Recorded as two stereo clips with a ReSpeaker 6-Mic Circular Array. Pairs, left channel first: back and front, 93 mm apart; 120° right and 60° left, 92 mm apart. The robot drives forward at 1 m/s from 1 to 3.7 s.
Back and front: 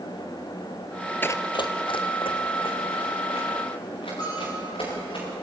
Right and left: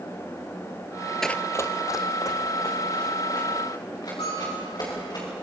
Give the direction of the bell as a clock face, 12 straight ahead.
5 o'clock.